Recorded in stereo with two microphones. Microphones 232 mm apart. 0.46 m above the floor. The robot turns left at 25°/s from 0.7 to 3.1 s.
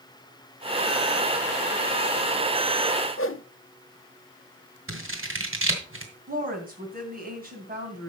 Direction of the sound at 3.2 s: 55° left (ahead or behind).